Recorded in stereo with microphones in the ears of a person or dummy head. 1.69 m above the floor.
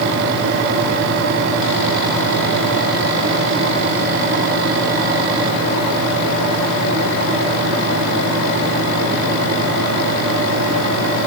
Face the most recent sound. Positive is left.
No sound to turn to.